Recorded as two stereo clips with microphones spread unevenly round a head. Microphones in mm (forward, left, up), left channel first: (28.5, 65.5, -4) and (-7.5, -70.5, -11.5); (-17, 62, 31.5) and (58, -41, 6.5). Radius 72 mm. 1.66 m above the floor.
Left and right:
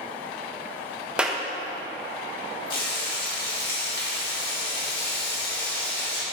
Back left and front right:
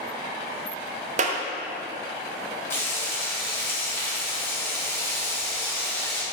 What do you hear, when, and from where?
1.2 s a clap: 20° right, 1.2 m
2.7 s frying: 55° left, 3 m